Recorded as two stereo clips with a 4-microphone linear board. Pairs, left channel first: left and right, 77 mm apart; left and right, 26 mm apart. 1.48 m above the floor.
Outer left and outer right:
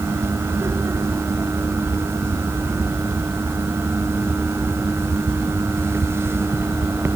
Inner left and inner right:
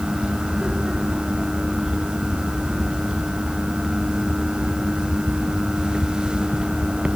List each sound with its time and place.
Only background noise.